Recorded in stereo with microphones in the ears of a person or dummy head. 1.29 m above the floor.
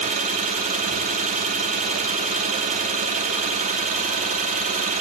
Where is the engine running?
40° right (ahead or behind), 1.3 m.